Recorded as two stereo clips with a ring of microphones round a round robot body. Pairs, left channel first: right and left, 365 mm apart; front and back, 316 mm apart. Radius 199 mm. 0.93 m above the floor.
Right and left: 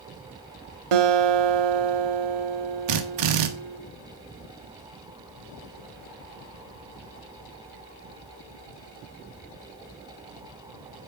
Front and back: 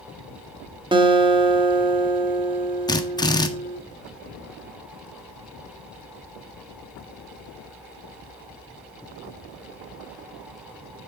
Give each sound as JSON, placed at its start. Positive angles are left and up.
{"t": 0.9, "sound": "a guitar", "azimuth_deg": 105, "distance_m": 1.6}
{"t": 2.9, "sound": "a drill", "azimuth_deg": 80, "distance_m": 1.6}